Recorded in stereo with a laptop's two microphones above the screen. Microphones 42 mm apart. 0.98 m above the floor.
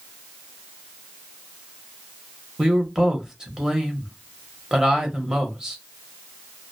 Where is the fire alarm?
No fire alarm in this recording.